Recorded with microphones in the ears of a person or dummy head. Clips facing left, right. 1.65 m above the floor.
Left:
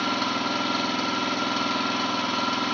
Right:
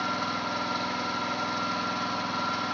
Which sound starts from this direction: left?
An engine running, at 0.0 s.